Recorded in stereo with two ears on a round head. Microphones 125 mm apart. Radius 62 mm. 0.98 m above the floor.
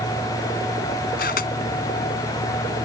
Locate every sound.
1.2 s a camera shutter: 70° left (ahead or behind)